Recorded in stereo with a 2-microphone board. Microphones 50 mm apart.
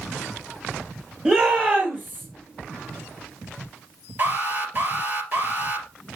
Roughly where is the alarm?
Right.